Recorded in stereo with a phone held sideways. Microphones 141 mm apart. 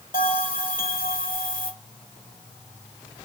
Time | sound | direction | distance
0.1 | a bell | 80° left | 1.4 m